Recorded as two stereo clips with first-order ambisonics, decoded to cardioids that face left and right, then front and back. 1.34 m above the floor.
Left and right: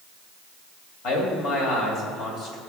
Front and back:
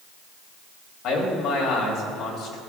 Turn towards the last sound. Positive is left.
turn(degrees=45)